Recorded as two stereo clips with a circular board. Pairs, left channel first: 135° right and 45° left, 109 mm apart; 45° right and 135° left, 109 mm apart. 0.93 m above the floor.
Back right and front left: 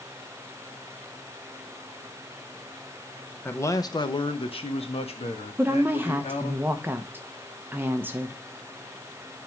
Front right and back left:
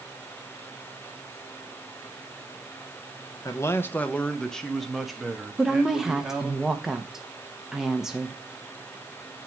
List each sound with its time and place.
3.5 s a man speaking: 75° right, 0.6 m; by 6.6 s 145° right, 2 m
5.6 s a woman speaking: 60° left, 0.8 m